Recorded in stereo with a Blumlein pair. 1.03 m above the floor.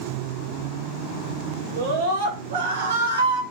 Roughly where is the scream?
Ahead right.